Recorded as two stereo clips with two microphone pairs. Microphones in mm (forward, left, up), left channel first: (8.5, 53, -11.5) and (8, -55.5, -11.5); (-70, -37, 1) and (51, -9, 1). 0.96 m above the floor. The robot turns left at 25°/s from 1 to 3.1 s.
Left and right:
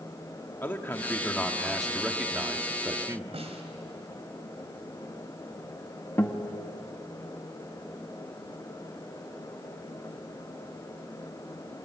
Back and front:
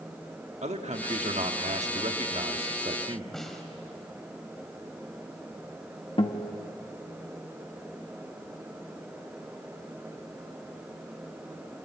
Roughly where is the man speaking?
Ahead.